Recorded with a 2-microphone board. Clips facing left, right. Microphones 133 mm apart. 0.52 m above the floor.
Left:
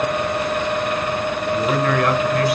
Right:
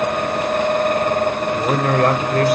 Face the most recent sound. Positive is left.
turn(degrees=-45)  # may be behind; listen again after turning